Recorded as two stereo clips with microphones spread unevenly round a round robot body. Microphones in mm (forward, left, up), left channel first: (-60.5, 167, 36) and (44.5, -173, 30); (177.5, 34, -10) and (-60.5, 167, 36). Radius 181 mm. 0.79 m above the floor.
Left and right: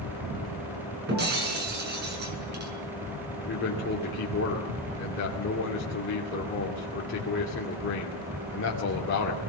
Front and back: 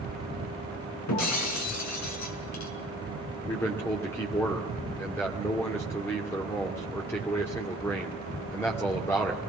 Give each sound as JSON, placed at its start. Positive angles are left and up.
{"t": 1.1, "sound": "breaking glass", "azimuth_deg": -10, "distance_m": 5.5}
{"t": 3.4, "sound": "a man speaking", "azimuth_deg": 50, "distance_m": 2.5}